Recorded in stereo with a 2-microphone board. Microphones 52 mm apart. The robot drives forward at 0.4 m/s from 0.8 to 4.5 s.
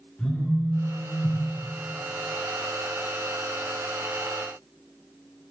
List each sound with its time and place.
0.2 s a phone buzzing: 15° left (ahead or behind), 0.6 m; by 1.4 s 25° left (ahead or behind), 0.5 m